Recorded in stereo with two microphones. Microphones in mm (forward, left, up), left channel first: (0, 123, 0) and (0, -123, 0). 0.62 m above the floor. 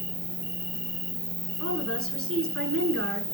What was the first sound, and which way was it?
An insect, 50° left (ahead or behind).